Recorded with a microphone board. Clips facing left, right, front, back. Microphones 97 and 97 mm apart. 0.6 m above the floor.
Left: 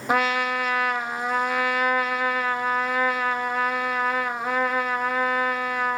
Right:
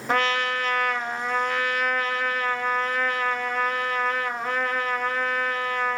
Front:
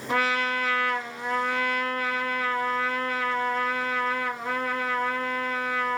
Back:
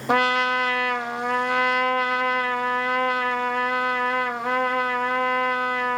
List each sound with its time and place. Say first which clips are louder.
0.1 s a trumpet: left 1 dB, back 5 dB; 170° left, 0.6 m